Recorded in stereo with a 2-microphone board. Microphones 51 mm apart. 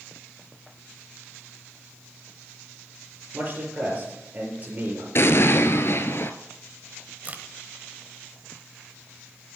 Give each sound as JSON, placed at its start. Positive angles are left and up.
{"t": 3.3, "sound": "a man speaking", "side_deg": -35, "distance_m": 6.0}
{"t": 5.2, "sound": "an explosion", "side_deg": 55, "distance_m": 0.8}
{"t": 7.2, "sound": "a crack", "side_deg": -30, "distance_m": 1.1}